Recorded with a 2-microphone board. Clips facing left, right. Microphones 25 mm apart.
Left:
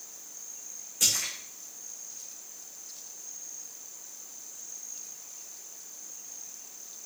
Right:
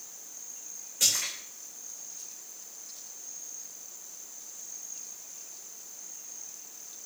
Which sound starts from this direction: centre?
A splash, at 1.0 s.